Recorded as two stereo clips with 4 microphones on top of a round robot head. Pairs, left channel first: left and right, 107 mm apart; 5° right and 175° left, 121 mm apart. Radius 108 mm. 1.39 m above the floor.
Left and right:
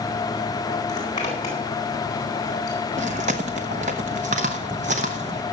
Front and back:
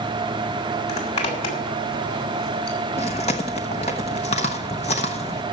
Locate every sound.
0.9 s a zipper: 25° left, 3.5 m
3.0 s chewing: 55° right, 0.8 m